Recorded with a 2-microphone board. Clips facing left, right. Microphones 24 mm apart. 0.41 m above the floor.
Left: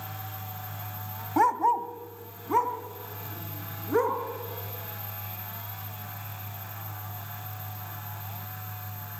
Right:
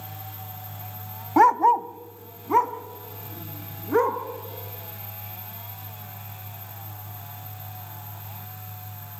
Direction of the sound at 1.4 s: 25° right (ahead or behind).